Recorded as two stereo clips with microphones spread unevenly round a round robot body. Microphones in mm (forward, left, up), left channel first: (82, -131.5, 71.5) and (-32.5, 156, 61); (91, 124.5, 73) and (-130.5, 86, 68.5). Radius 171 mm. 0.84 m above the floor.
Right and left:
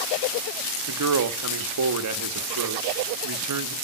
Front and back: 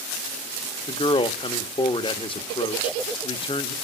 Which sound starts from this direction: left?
A man speaking, at 0.9 s.